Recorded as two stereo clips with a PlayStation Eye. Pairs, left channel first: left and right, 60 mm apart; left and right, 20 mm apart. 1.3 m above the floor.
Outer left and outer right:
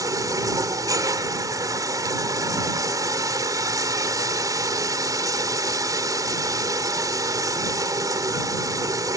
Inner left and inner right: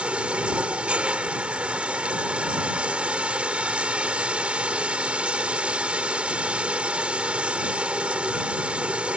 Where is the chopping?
I don't hear chopping.